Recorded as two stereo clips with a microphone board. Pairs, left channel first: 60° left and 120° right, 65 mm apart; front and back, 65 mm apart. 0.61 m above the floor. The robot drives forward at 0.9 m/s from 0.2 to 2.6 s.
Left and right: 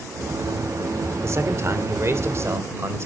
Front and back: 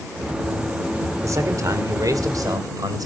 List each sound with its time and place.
1.2 s a man speaking: 155° right, 2.5 m; by 3.1 s 165° right, 3.5 m